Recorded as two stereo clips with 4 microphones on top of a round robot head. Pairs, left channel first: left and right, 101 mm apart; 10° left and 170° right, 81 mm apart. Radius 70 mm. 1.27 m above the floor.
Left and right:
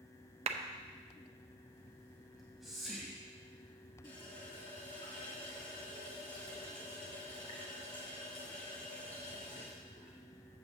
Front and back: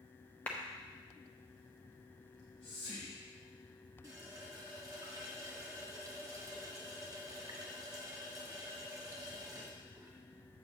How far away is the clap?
About 0.5 m.